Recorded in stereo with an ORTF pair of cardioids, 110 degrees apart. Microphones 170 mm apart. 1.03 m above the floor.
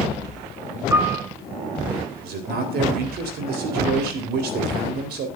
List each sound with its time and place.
0.9 s a piano: 20° right, 3.5 m
2.2 s a man speaking: 70° right, 4 m